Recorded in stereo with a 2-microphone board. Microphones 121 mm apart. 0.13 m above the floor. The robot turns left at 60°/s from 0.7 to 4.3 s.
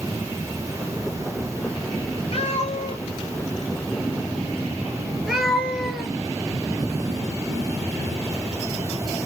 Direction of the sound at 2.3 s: 50° left (ahead or behind).